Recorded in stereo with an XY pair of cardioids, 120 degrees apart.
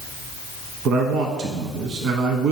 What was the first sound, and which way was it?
A man speaking, 65° right.